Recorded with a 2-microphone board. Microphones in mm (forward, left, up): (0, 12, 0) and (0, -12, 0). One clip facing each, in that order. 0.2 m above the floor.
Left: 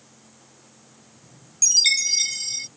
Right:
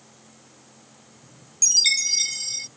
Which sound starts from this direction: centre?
A chime, at 1.6 s.